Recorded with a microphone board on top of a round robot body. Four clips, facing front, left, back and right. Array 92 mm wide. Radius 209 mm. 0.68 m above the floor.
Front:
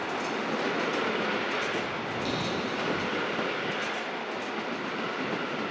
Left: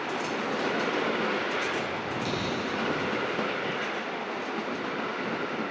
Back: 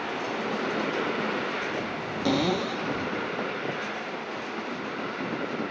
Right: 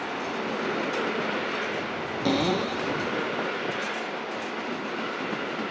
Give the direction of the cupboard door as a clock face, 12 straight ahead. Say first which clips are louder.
Right 10 dB, back 9 dB; 4 o'clock.